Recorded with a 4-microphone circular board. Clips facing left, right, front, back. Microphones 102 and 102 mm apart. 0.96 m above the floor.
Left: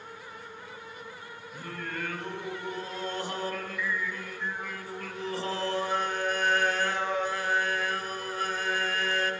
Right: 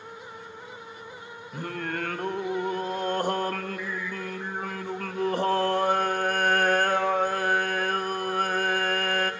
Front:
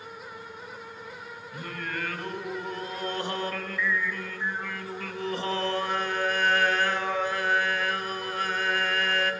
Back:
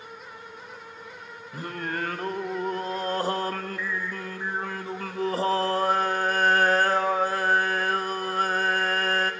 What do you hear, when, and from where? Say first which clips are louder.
1.5 s singing: right 6 dB, back 4 dB; 125° right, 0.8 m